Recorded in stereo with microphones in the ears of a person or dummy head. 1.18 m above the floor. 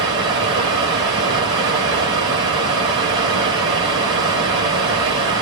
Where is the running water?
25° right (ahead or behind), 0.7 m.